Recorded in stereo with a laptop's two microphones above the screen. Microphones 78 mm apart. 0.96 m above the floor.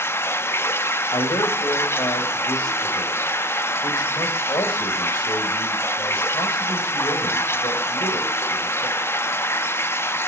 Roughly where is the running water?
Left.